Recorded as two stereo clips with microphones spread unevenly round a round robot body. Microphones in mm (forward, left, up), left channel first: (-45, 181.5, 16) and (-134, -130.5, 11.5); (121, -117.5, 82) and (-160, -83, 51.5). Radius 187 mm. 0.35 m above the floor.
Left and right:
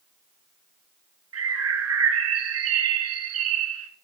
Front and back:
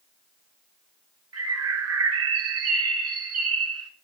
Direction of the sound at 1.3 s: 150° right.